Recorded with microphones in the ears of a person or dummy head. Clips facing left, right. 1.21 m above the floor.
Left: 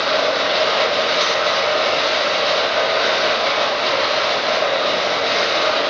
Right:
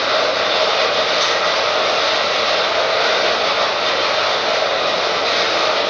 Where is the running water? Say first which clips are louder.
Right 1 dB; 15° left (ahead or behind), 1.2 m.